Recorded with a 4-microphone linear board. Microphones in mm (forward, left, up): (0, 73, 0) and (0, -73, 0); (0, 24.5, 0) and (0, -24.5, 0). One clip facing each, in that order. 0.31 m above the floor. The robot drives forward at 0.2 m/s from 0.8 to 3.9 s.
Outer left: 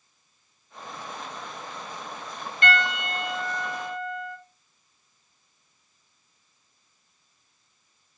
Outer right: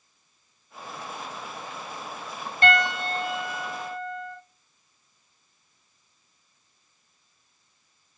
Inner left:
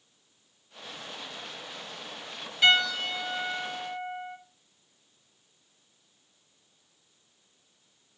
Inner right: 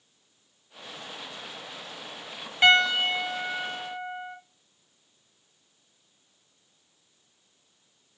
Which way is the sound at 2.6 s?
40° right (ahead or behind).